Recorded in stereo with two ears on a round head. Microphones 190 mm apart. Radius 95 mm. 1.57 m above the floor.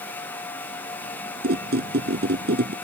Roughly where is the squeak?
Right.